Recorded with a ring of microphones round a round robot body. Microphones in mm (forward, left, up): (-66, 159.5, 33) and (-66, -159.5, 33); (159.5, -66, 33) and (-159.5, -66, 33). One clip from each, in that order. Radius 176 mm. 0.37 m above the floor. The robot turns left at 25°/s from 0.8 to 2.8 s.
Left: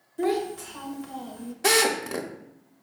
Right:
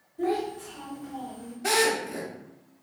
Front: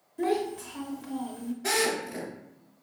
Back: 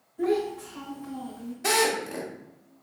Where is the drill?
125° left, 0.7 m; by 2.3 s 110° left, 0.7 m.